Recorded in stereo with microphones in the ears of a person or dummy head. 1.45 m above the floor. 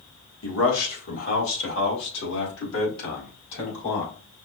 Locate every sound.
0.4 s a man speaking: 85° left, 1.8 m; by 4.1 s 60° left (ahead or behind), 4 m